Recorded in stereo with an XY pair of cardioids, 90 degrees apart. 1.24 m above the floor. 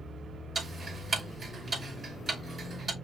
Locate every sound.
0.6 s ticking: 45° right, 2.5 m